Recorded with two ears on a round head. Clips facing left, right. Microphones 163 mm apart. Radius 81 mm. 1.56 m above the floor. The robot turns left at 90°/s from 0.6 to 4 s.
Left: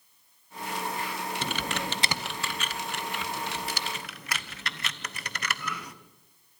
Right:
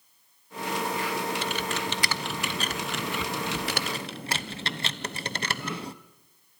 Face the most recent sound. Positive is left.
turn(degrees=-25)  # may be behind; listen again after turning